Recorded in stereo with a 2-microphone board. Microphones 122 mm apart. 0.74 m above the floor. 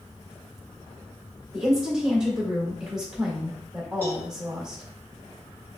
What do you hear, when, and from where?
1.5 s a woman speaking: 5° right (ahead or behind), 1.8 m
4.0 s a cowbell: 20° left (ahead or behind), 1.9 m